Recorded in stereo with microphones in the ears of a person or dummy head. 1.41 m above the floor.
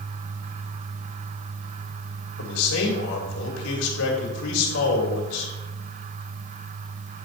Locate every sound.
2.4 s a man speaking: 85° left, 3 m